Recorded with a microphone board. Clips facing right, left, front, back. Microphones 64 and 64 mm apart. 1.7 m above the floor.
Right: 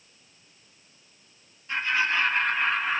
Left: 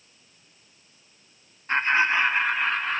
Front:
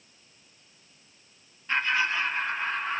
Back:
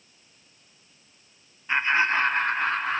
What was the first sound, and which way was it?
Laughter, 110° left.